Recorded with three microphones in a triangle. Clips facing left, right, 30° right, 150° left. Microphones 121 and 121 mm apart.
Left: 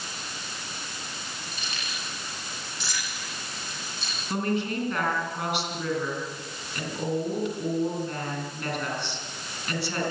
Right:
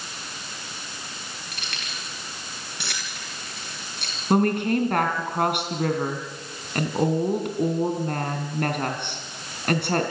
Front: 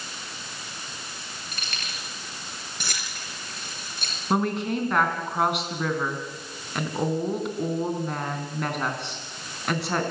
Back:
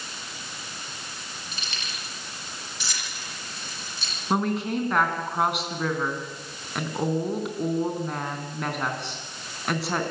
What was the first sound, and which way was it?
Keys jangling, 65° right.